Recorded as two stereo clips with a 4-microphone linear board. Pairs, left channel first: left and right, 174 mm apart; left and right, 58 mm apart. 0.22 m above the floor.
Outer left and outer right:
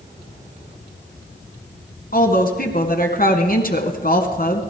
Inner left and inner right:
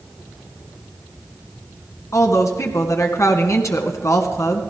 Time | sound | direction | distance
2.1 | a woman speaking | 55° left (ahead or behind) | 2.0 m